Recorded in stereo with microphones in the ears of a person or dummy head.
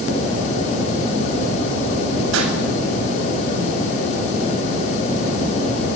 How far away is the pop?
About 9 m.